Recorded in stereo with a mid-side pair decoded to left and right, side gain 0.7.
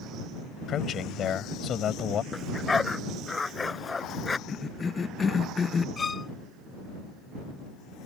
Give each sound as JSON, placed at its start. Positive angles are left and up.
{"t": 0.7, "sound": "a man speaking", "azimuth_deg": 40}
{"t": 2.3, "sound": "a dog barking", "azimuth_deg": 15}
{"t": 4.5, "sound": "a cough", "azimuth_deg": 25}
{"t": 6.0, "sound": "a violin", "azimuth_deg": 25}